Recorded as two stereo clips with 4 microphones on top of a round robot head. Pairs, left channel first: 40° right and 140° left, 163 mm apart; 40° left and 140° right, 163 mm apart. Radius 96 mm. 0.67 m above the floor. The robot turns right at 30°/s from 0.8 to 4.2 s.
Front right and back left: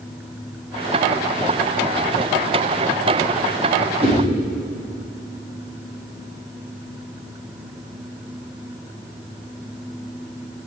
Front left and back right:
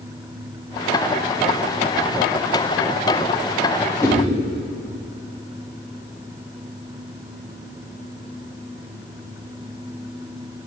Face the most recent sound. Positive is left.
turn(degrees=115)